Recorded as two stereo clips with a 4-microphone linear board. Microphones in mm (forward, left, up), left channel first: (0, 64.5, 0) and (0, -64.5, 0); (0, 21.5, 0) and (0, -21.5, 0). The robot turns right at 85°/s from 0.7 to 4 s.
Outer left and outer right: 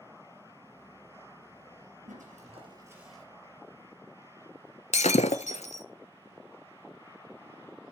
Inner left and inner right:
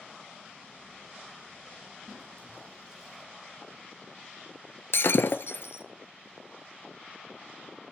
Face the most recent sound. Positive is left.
turn(degrees=60)  # may be behind; listen again after turning